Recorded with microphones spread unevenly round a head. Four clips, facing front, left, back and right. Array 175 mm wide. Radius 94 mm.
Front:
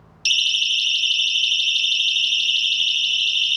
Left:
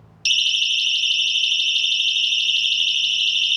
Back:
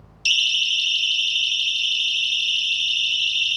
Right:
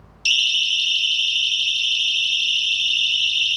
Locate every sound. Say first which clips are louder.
0.2 s a siren: right 1 dB, even; straight ahead, 2.5 m; by 3.6 s 5° left, 6.5 m